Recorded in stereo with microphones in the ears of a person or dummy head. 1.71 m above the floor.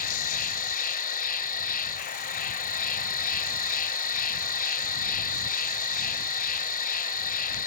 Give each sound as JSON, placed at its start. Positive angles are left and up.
{"t": 0.0, "sound": "an insect", "side_deg": 45}